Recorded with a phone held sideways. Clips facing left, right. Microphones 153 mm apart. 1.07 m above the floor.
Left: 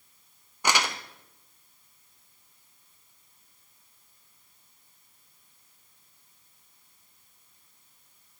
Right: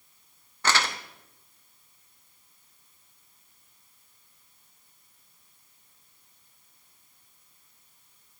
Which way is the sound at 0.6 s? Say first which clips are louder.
Even; 15° left (ahead or behind).